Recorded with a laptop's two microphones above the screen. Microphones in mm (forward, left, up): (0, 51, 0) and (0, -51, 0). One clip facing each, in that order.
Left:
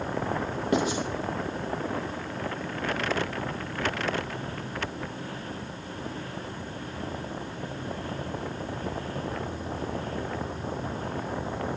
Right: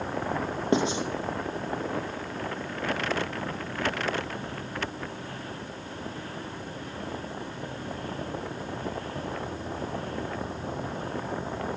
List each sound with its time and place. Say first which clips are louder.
0.7 s writing: right 1 dB; 25° right (ahead or behind), 1.0 m